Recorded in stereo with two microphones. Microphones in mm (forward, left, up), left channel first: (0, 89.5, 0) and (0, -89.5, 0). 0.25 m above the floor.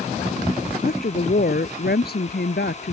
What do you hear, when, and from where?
0.8 s a woman speaking: 55° left (ahead or behind); by 2.9 s 65° left (ahead or behind)